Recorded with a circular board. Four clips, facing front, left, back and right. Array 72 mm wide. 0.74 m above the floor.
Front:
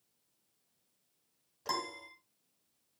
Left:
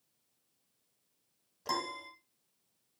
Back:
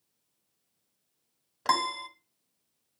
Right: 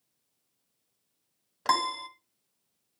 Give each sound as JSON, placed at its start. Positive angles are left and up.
{"t": 1.6, "sound": "a piano", "azimuth_deg": -135, "distance_m": 1.6}